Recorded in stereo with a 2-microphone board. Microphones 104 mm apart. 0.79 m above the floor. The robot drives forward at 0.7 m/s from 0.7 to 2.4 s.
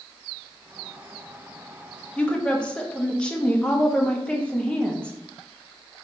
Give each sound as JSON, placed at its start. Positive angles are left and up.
{"t": 2.2, "sound": "a woman speaking", "side_deg": 10, "distance_m": 0.5}